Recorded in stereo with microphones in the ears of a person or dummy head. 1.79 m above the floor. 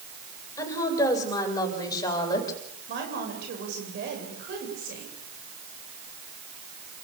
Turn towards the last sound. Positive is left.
turn(degrees=-60)  # may be behind; listen again after turning